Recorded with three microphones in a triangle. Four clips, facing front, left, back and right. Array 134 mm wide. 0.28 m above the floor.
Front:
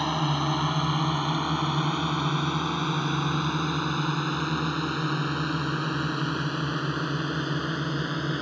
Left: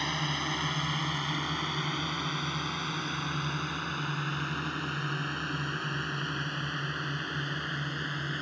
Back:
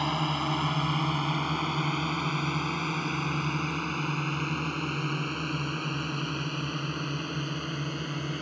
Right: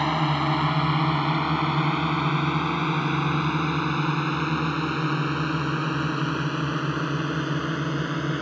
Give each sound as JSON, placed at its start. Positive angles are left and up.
{"t": 0.0, "sound": "a drone", "azimuth_deg": -85}